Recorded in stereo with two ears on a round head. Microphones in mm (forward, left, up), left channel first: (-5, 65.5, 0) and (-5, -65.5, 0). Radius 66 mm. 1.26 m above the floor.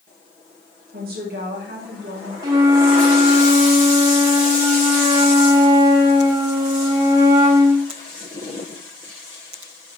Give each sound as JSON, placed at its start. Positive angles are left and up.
{"t": 0.9, "sound": "a woman speaking", "side_deg": -70, "distance_m": 2.5}
{"t": 2.4, "sound": "a flute", "side_deg": -25, "distance_m": 1.0}